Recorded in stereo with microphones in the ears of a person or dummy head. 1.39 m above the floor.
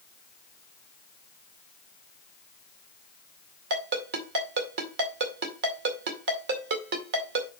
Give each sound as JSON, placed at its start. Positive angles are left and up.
{"t": 3.7, "sound": "a ringtone", "side_deg": -60, "distance_m": 2.0}